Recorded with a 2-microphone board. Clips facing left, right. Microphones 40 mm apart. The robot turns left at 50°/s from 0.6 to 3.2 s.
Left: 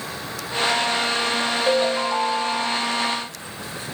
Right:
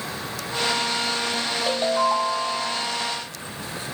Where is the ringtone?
10° left, 2.5 m; by 2.9 s 50° right, 2.5 m.